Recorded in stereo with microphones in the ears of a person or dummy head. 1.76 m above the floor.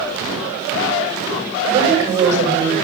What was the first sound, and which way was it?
A woman speaking, 20° right (ahead or behind).